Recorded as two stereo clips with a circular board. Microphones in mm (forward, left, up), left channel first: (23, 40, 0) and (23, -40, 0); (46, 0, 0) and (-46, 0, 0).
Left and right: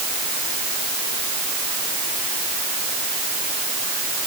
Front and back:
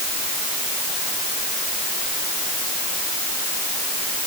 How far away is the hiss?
No hiss in this recording.